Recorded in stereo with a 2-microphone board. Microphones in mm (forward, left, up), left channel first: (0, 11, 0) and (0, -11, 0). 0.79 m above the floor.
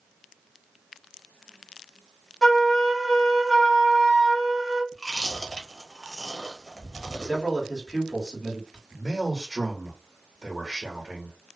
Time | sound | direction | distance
2.4 | a flute | 15° left (ahead or behind) | 1.4 m
4.9 | chewing | 5° left (ahead or behind) | 0.8 m
7.2 | a man speaking | 15° left (ahead or behind) | 1.6 m
8.9 | a man speaking | 5° right (ahead or behind) | 1.0 m